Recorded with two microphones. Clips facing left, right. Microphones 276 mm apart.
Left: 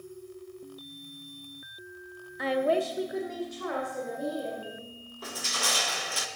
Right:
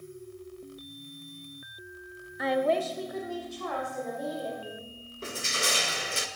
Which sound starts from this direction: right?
Crushing, at 5.2 s.